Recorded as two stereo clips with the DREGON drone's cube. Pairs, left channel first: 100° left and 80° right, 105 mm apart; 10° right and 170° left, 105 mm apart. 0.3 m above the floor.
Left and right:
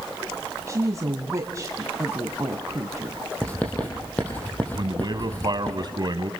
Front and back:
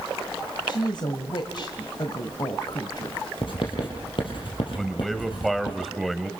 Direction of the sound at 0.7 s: 30° right.